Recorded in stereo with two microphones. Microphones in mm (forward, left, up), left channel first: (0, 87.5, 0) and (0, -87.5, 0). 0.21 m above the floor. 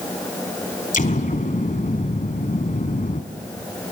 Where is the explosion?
50° left (ahead or behind), 1.1 m.